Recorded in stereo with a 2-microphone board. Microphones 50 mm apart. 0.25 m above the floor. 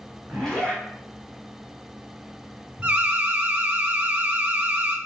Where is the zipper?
15° left (ahead or behind), 2 m.